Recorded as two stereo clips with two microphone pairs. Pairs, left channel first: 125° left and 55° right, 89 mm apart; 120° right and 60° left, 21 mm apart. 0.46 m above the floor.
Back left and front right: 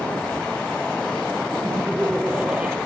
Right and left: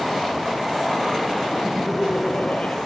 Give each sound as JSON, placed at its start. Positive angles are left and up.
{"t": 1.6, "sound": "laughter", "azimuth_deg": -135}